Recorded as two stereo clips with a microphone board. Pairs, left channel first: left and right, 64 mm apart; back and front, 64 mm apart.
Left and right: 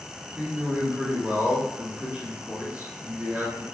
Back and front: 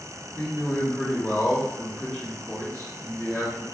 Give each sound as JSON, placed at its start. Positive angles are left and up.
{"t": 0.3, "sound": "a man speaking", "azimuth_deg": -115, "distance_m": 1.9}